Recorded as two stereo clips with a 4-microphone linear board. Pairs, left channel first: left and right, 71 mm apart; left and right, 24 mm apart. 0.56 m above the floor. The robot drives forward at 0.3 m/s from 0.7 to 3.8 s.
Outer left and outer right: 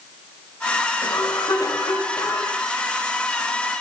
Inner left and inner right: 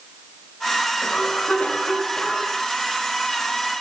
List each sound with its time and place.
1.0 s a cough: 55° left (ahead or behind), 6.5 m